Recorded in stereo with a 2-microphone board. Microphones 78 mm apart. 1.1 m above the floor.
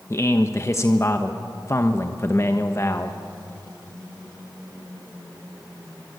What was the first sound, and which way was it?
A man speaking, 35° left (ahead or behind).